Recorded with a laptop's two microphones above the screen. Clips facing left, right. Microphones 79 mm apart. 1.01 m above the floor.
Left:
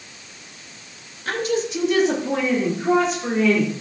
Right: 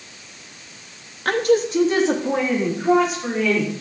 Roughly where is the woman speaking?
Right.